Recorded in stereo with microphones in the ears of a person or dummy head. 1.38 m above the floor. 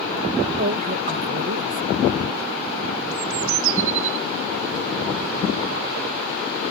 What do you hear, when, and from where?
0.6 s a woman speaking: 45° right (ahead or behind)
3.1 s a bird: 75° right (ahead or behind)